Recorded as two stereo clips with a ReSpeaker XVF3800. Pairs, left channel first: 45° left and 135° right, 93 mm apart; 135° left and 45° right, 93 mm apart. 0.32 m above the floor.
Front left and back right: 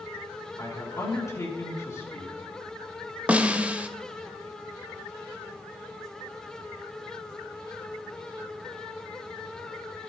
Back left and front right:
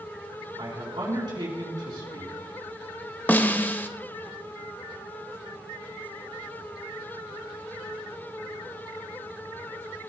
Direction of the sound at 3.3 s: 170° left.